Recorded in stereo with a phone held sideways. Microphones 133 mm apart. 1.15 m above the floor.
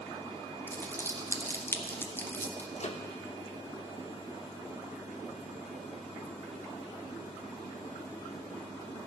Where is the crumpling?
15° left (ahead or behind), 1.2 m.